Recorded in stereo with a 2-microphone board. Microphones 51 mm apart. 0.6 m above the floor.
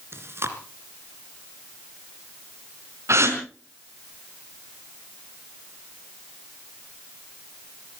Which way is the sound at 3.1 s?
65° right (ahead or behind).